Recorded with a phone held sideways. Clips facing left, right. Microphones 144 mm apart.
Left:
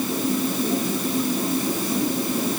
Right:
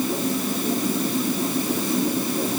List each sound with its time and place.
Only background noise.